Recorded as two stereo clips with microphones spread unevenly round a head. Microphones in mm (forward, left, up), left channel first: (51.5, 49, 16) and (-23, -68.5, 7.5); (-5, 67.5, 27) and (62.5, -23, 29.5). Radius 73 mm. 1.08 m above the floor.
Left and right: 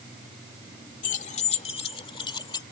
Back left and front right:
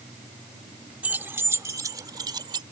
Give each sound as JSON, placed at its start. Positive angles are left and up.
{"t": 1.0, "sound": "keys jangling", "azimuth_deg": 25}